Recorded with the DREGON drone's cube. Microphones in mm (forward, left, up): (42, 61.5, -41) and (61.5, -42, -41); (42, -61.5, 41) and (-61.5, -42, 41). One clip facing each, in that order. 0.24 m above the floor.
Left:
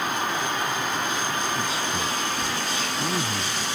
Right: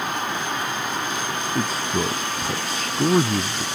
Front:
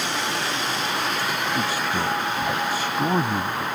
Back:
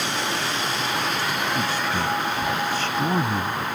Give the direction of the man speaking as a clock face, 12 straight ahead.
3 o'clock.